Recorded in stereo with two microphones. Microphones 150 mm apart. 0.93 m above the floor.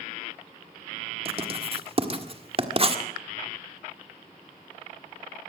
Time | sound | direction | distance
1.2 | writing | 40° right (ahead or behind) | 1.6 m